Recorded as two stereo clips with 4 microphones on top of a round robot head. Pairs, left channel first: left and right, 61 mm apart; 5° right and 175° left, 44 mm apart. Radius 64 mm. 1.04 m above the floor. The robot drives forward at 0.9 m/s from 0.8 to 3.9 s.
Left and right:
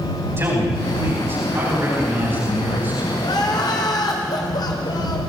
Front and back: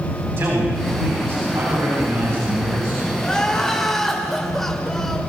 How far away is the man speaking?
About 8.5 m.